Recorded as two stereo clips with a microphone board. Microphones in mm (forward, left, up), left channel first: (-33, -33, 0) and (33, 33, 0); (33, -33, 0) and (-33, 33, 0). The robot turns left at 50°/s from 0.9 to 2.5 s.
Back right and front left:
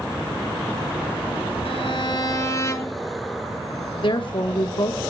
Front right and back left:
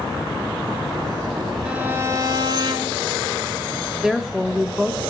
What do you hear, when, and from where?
1.6 s a violin: 145° right, 1.2 m; by 3.0 s 170° left, 1.2 m
4.0 s a woman speaking: 140° right, 0.9 m